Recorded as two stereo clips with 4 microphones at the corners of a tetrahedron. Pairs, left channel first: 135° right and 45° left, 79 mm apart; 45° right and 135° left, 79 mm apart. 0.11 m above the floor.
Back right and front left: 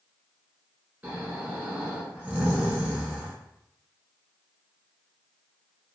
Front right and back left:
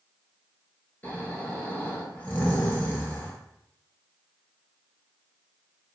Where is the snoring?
5° right, 0.8 m.